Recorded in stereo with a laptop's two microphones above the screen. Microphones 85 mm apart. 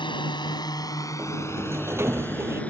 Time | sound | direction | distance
0.0 | a drone | 80° left | ?
1.2 | a sliding door | 30° right (ahead or behind) | ?